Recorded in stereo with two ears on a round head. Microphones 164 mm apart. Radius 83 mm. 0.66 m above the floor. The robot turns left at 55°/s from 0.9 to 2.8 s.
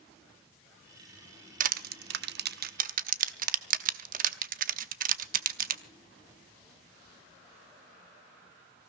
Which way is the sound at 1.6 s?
45° right (ahead or behind).